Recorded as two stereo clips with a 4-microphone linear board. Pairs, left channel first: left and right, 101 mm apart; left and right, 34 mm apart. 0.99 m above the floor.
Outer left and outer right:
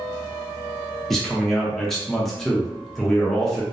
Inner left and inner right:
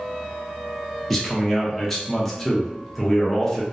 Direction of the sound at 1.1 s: 5° left (ahead or behind).